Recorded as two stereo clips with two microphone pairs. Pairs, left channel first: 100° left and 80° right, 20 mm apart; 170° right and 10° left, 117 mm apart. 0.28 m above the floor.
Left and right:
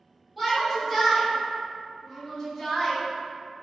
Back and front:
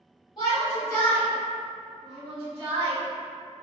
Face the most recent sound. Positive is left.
turn(degrees=25)